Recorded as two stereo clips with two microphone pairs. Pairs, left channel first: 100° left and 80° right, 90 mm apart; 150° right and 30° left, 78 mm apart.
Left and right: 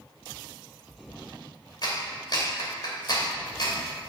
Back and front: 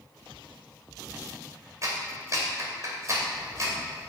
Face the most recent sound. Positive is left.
turn(degrees=70)